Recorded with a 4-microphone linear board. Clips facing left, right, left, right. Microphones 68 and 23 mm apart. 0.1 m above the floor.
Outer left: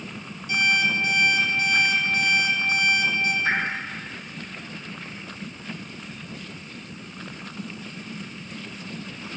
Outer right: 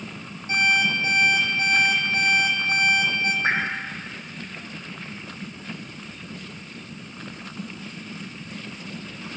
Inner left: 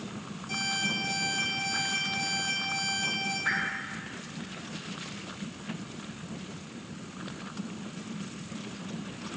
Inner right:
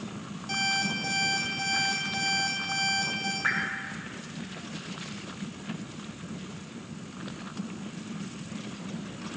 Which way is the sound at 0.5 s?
35° right (ahead or behind).